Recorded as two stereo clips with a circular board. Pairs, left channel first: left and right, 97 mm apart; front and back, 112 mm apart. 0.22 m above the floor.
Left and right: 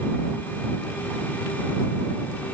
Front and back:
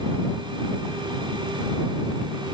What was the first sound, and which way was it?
Only background noise.